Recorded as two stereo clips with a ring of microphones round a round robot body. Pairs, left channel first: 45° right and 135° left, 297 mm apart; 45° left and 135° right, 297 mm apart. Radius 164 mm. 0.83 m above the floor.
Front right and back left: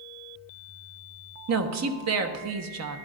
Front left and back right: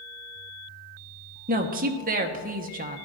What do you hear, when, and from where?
1.5 s a woman speaking: 165° left, 1.2 m